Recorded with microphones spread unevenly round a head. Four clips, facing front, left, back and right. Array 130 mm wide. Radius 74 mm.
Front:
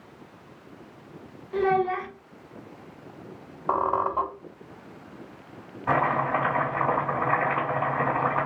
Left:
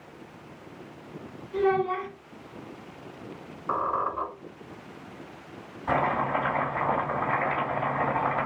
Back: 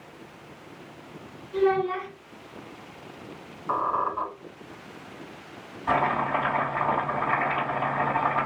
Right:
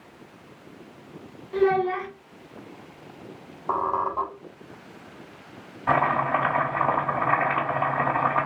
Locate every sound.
1.5 s a child speaking: 70° right, 1.6 m
3.7 s a squeak: 15° right, 1.4 m
5.9 s chopping: 90° right, 2.5 m